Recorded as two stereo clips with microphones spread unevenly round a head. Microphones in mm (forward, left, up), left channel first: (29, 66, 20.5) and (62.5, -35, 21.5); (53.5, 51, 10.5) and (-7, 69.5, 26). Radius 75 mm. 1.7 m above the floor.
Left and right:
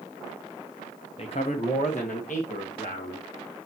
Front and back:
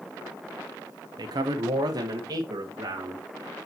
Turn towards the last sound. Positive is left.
turn(degrees=145)